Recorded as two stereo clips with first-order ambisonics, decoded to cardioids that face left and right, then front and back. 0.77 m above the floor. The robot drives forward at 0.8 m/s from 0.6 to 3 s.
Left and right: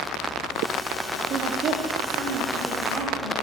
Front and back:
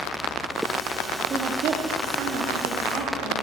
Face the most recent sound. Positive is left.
turn(degrees=-160)